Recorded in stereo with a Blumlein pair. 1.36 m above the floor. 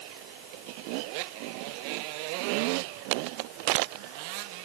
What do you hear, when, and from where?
Only background noise.